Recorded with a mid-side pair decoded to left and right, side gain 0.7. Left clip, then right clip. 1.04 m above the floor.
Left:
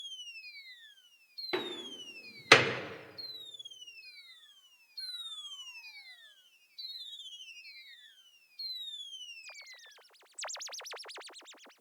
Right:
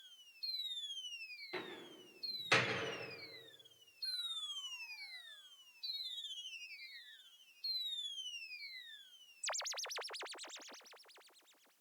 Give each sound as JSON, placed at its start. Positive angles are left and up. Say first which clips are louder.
{"t": 1.5, "sound": "a door slam", "louder": "left 12 dB", "azimuth_deg": 60, "distance_m": 1.8}